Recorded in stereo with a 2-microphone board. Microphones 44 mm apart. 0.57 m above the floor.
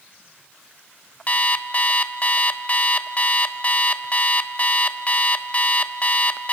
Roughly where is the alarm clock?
Left.